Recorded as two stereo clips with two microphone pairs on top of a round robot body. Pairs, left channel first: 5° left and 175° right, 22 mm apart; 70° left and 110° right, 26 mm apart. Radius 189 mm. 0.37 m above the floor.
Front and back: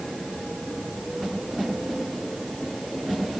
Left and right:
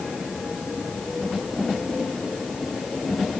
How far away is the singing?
I don't hear singing.